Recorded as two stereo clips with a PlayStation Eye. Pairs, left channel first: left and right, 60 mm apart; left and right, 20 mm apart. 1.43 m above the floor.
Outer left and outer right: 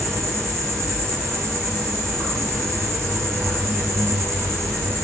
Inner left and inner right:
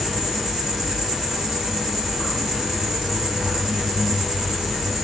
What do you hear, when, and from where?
0.0 s an insect: 45° right (ahead or behind), 1.5 m